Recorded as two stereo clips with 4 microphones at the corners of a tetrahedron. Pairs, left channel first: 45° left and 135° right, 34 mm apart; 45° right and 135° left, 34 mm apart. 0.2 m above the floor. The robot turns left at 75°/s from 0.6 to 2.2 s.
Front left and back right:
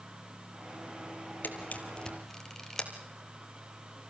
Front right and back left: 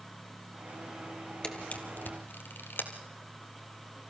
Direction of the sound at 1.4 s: 20° left.